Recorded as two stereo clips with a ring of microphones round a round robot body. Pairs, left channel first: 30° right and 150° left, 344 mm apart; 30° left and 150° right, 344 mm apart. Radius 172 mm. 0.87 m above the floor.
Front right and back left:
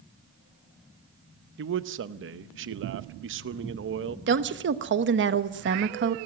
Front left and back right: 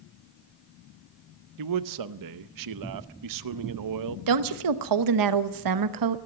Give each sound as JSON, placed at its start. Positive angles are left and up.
{"t": 1.6, "sound": "a man speaking", "azimuth_deg": -160, "distance_m": 0.7}
{"t": 4.3, "sound": "a woman speaking", "azimuth_deg": -155, "distance_m": 1.0}